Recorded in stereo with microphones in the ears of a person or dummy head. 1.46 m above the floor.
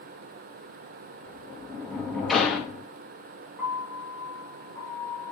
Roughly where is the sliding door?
Centre.